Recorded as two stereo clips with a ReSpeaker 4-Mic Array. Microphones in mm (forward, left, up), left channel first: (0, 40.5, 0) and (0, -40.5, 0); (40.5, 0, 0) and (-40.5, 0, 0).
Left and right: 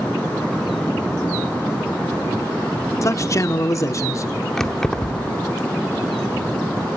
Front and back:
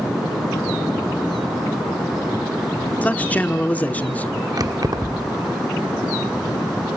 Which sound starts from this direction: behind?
Keys jangling, at 4.6 s.